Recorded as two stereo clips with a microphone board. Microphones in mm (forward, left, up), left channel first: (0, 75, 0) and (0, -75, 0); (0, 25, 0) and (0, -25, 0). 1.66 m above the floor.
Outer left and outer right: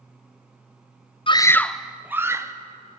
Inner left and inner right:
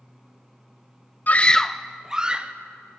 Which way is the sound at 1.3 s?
35° left (ahead or behind).